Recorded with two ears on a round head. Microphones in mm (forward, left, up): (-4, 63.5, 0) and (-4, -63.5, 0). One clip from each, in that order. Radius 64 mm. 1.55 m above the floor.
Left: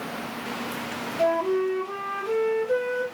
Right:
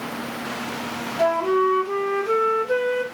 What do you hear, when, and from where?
1.2 s a flute: 15° right (ahead or behind), 0.5 m